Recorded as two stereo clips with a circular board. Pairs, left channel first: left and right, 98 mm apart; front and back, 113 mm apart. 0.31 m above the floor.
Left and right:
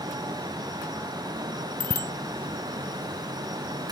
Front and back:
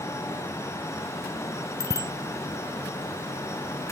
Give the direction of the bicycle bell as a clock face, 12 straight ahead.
4 o'clock.